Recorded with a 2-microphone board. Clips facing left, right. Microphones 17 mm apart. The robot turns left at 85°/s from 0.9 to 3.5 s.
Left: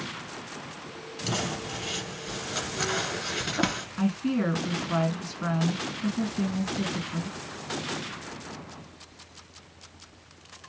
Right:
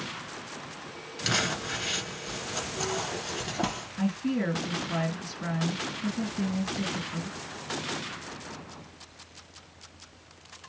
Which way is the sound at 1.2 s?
75° right (ahead or behind).